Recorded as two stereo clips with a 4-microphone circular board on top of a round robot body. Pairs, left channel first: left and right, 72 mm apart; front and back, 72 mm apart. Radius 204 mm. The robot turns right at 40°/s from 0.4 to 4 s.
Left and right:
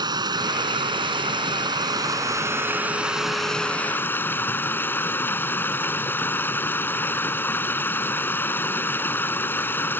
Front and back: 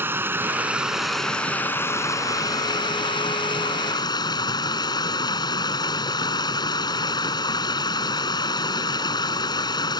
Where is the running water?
120° right; by 10.0 s 25° left.